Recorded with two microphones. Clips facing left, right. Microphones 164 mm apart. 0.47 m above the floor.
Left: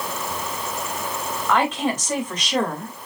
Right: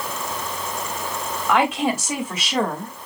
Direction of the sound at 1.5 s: 10° right (ahead or behind).